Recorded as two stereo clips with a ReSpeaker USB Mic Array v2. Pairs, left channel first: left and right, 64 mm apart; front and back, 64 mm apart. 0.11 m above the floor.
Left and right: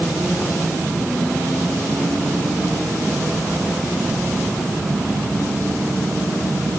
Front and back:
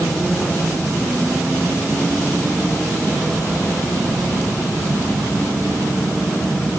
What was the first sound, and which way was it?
Only background noise.